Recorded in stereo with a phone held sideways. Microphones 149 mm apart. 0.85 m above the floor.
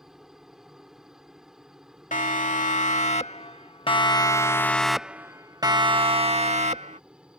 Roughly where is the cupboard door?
I don't hear a cupboard door.